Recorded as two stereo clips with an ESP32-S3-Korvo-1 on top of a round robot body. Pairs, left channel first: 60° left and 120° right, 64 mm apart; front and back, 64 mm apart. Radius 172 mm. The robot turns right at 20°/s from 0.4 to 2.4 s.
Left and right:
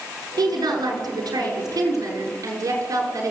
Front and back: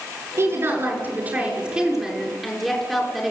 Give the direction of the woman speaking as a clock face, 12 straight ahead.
4 o'clock.